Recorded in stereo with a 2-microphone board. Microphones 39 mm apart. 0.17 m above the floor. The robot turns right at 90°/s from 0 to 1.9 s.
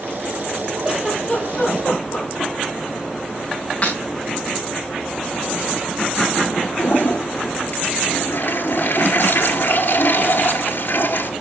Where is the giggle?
30° right (ahead or behind), 5 m; by 2.5 s 60° left (ahead or behind), 5 m.